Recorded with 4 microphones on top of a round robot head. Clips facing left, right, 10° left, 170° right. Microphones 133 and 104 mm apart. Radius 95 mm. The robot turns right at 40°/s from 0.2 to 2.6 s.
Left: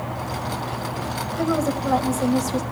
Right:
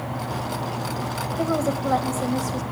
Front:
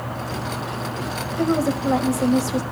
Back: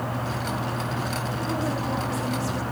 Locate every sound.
1.4 s a woman speaking: 20° right, 2.5 m; by 2.6 s 30° left, 2.5 m